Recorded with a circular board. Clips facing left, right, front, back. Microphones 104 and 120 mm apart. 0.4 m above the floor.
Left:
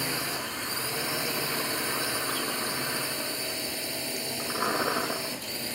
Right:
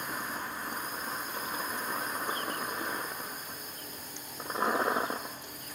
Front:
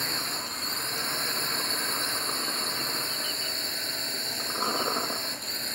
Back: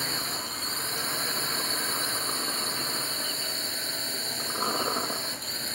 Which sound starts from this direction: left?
A drone, at 0.0 s.